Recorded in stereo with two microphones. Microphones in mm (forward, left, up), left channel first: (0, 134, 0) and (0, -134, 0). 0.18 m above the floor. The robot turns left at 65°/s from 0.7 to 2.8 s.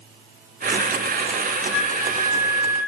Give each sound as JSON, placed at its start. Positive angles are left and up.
{"t": 1.7, "sound": "a flute", "side_deg": 0, "distance_m": 1.6}